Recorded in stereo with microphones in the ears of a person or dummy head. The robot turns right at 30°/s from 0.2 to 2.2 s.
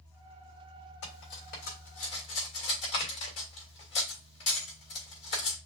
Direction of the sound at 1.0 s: 65° left (ahead or behind).